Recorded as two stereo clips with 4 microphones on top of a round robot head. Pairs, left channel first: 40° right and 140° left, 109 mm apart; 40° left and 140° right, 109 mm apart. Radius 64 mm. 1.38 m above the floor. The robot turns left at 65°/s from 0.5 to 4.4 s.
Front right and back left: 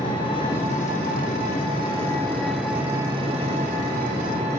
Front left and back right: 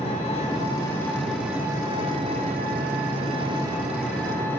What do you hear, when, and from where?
0.0 s an engine running: 5° left, 3.5 m; by 4.6 s 110° left, 3.5 m